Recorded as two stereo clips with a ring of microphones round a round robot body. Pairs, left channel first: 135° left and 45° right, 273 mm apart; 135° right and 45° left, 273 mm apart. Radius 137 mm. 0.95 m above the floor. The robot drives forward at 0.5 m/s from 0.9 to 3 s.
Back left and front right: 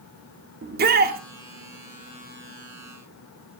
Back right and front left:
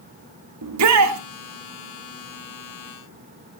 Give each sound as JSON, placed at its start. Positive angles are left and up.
{"t": 0.6, "sound": "a shout", "azimuth_deg": 15, "distance_m": 1.9}